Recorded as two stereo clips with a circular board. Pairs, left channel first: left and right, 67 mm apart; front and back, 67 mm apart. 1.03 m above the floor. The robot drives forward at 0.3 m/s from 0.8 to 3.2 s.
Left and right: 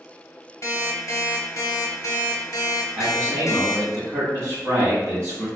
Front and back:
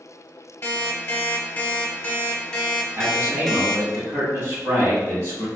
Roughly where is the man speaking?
Behind right.